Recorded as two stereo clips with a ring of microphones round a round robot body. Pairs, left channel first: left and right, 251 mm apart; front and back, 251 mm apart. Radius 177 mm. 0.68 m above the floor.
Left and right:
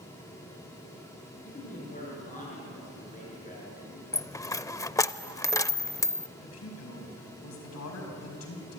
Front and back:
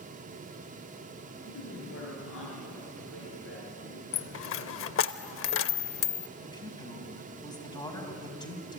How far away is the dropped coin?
About 0.5 m.